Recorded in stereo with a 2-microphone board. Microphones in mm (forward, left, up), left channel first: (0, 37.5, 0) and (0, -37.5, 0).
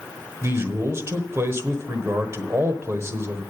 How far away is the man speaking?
About 1.1 m.